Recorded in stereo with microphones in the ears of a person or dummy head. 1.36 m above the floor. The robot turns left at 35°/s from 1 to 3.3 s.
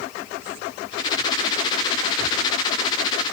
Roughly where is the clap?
I don't hear a clap.